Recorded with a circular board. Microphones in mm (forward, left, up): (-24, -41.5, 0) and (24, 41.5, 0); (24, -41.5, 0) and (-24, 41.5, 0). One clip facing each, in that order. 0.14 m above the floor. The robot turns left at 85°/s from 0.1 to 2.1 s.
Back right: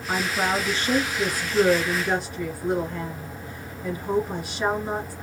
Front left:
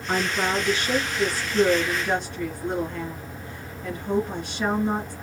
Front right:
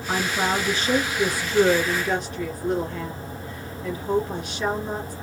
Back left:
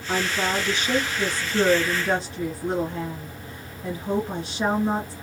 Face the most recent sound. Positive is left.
turn(degrees=160)